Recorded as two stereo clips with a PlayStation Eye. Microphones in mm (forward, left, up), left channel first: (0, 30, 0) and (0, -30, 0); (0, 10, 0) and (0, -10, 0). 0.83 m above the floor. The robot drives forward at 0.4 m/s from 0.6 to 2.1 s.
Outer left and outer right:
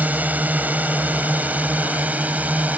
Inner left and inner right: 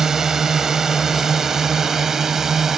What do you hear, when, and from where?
0.0 s a drone: 25° right (ahead or behind)